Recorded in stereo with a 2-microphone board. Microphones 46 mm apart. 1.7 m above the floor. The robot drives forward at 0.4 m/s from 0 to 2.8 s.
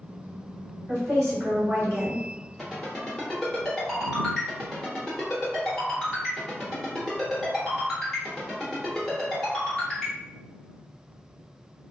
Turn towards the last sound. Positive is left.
turn(degrees=10)  # may be behind; listen again after turning